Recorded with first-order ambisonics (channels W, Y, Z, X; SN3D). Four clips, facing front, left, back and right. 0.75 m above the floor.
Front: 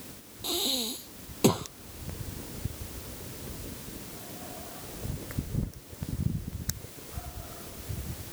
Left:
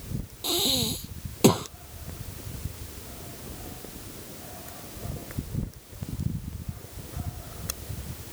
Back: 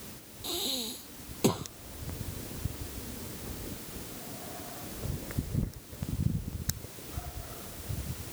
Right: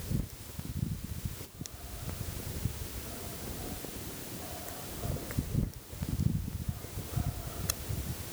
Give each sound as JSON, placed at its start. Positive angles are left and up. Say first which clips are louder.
{"t": 0.4, "sound": "breathing", "louder": "left 16 dB, front 4 dB", "azimuth_deg": 75}